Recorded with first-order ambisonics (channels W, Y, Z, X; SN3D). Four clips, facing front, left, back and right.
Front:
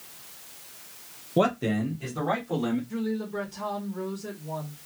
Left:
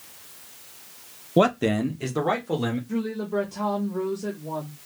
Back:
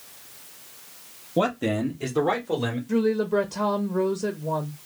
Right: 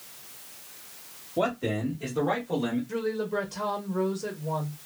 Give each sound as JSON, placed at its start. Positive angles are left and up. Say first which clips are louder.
{"t": 1.4, "sound": "a man speaking", "louder": "left 7 dB, back 1 dB", "azimuth_deg": 80, "distance_m": 0.6}
{"t": 2.9, "sound": "a woman speaking", "louder": "left 1 dB, back 8 dB", "azimuth_deg": 175, "distance_m": 0.6}